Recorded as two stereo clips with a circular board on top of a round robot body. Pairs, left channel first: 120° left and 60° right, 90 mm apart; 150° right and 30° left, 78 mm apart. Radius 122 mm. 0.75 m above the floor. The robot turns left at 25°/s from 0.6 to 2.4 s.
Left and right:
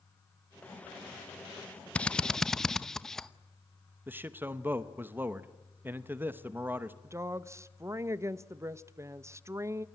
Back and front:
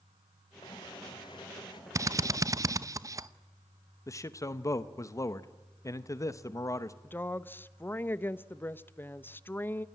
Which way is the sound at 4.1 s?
120° right.